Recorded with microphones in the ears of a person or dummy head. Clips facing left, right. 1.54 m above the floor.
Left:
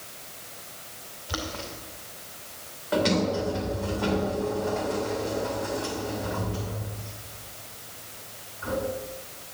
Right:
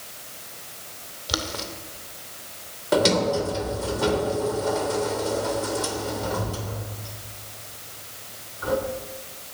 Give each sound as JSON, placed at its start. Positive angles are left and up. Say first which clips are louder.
{"t": 1.3, "sound": "boiling", "louder": "right 3 dB", "side_deg": -55, "distance_m": 2.5}
{"t": 2.9, "sound": "a sliding door", "louder": "right 4 dB", "side_deg": -65, "distance_m": 2.5}